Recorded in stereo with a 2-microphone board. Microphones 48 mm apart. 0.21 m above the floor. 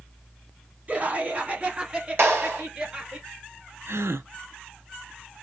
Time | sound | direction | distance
0.9 | laughter | 35° right (ahead or behind) | 1.3 m
2.2 | a clap | 50° right (ahead or behind) | 3.5 m
3.9 | a gasp | 75° right (ahead or behind) | 0.5 m